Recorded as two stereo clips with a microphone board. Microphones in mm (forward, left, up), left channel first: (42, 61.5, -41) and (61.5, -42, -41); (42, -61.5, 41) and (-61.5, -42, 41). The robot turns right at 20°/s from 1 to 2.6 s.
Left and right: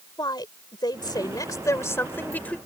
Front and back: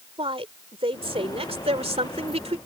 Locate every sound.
0.2 s a woman speaking: 145° left; by 2.6 s 175° left